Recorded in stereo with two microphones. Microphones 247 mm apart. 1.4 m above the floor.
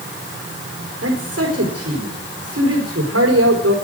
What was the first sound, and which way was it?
A man speaking, 70° right (ahead or behind).